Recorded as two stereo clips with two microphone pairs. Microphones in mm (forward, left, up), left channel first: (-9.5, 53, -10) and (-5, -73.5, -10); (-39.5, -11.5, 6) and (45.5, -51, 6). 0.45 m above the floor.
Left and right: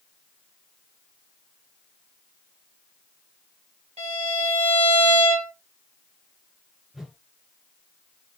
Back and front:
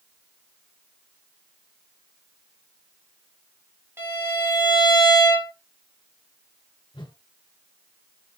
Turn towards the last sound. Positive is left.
turn(degrees=-175)